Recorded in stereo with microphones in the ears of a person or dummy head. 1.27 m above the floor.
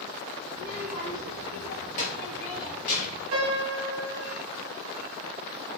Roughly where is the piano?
Right.